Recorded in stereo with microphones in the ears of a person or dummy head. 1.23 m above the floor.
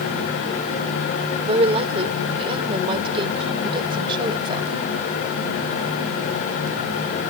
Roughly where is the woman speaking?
Right.